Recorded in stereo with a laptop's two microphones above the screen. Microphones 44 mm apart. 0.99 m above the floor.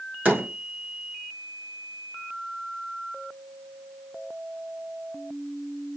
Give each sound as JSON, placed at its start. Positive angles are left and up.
{"t": 0.2, "sound": "a door slam", "side_deg": -45, "distance_m": 2.5}